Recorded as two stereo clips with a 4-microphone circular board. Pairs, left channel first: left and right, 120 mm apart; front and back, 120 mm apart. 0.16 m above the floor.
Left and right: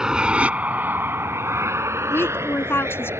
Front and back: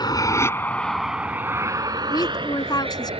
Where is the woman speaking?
30° left.